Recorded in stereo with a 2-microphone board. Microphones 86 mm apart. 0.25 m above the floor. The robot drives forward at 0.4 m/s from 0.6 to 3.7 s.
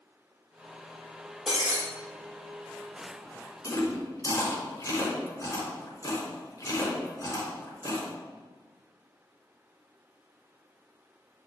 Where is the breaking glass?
10° right (ahead or behind), 3.5 m.